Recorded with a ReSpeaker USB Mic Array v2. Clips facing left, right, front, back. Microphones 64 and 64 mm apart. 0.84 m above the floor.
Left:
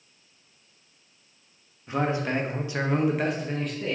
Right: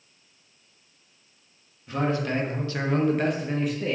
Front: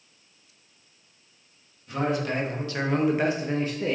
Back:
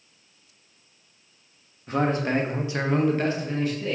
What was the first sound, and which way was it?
A man speaking, 155° left.